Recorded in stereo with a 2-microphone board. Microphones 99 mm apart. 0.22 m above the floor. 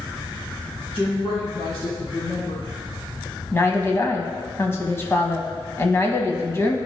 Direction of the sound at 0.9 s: 65° left (ahead or behind).